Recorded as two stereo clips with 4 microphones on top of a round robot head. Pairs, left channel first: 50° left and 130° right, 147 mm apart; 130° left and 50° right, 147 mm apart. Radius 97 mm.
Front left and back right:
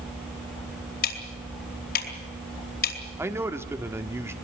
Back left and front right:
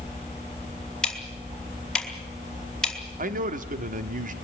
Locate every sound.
1.0 s ticking: 45° left, 4 m
3.2 s a man speaking: 55° right, 1.6 m